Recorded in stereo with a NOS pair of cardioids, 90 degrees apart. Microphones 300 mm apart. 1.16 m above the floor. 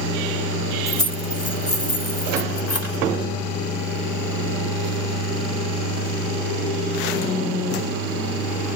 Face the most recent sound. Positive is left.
turn(degrees=50)